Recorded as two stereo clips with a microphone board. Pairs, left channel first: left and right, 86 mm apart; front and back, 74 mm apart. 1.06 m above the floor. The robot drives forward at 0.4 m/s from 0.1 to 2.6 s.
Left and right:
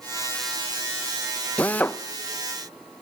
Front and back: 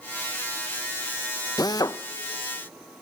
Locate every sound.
1.6 s a drill: 20° left, 0.8 m; by 2.0 s 25° left, 0.6 m